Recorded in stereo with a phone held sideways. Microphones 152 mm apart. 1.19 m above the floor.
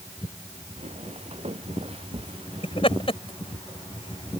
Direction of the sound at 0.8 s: 50° right (ahead or behind).